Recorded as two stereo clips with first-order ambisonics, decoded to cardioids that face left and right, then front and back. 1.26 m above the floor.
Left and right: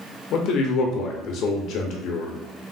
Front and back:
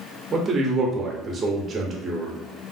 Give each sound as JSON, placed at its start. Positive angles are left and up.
{"t": 0.3, "sound": "a man speaking", "azimuth_deg": 110, "distance_m": 0.6}